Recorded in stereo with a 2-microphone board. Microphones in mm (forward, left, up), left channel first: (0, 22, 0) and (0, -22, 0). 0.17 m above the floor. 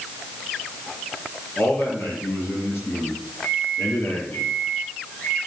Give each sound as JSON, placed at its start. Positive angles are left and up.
{"t": 1.6, "sound": "a man speaking", "side_deg": 65, "distance_m": 5.5}
{"t": 3.4, "sound": "a microwave", "side_deg": 70, "distance_m": 5.0}